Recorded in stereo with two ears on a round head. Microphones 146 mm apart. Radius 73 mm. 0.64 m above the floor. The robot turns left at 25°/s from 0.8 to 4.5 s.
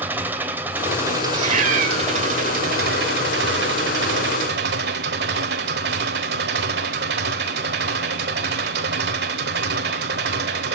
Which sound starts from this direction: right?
A cat meowing, at 1.3 s.